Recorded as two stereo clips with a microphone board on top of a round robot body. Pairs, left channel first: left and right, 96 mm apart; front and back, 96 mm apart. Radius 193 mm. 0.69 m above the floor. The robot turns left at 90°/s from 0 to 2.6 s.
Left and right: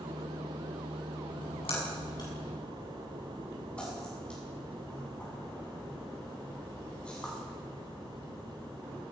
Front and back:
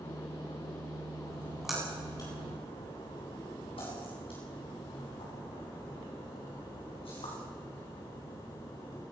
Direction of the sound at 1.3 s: 130° left.